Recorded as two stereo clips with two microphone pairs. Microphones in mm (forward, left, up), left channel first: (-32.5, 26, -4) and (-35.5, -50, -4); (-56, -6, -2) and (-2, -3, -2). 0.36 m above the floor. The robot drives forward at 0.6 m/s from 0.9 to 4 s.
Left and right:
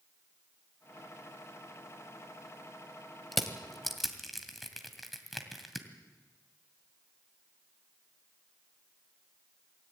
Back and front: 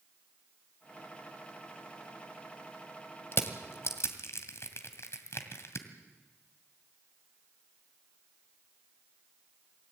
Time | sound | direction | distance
3.3 | crushing | straight behind | 1.8 m